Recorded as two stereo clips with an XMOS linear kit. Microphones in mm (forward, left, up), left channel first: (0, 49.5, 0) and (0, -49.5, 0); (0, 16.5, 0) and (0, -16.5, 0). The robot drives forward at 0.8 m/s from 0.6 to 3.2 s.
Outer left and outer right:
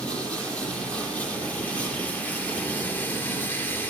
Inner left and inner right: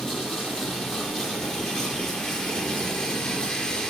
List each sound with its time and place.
0.0 s running water: 10° left (ahead or behind), 5 m; by 3.9 s 20° left (ahead or behind), 3 m